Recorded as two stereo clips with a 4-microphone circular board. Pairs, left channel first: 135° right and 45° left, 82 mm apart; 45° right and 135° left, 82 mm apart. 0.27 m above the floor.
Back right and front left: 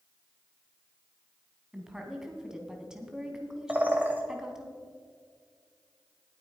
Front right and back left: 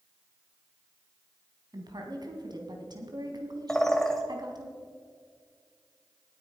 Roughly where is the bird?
Ahead left.